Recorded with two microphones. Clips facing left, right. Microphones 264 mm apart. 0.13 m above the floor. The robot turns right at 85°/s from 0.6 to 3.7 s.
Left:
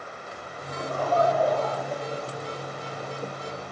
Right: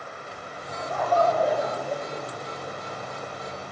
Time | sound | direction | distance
0.7 | laughter | 115° left | 5 m